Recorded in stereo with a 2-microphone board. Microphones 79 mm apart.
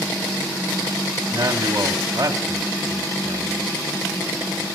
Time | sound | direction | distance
1.3 | a man speaking | 50° right (ahead or behind) | 2 m